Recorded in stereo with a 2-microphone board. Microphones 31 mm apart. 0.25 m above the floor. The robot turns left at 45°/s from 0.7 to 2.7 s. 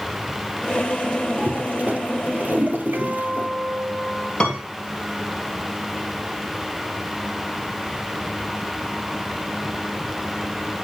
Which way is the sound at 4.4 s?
35° left (ahead or behind).